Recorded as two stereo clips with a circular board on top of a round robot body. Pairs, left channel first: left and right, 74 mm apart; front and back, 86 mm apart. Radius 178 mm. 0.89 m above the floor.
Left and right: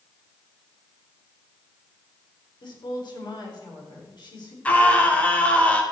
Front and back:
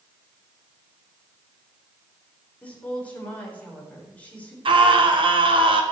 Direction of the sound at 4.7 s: 160° left.